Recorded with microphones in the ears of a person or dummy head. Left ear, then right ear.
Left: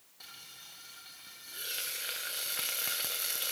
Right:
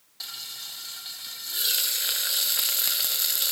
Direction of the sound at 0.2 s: 40° right (ahead or behind).